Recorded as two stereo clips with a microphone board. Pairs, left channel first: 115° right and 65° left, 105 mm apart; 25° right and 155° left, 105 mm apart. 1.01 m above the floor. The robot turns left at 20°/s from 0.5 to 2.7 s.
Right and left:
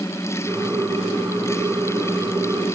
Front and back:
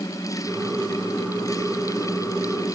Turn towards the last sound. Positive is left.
No sound to turn to.